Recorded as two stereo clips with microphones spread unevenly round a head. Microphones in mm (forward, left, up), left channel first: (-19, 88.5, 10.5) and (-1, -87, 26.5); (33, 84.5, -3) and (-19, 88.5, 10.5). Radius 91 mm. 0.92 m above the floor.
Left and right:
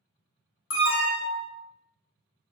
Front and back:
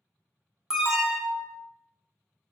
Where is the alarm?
90° left, 1.0 m.